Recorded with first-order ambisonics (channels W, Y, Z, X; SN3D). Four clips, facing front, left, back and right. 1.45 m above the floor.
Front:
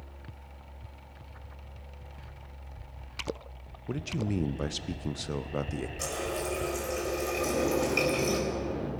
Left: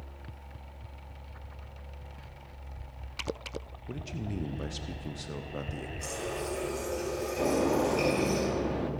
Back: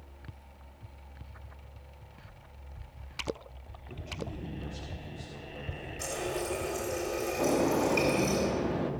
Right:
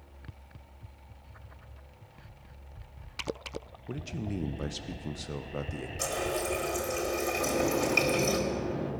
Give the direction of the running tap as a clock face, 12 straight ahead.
2 o'clock.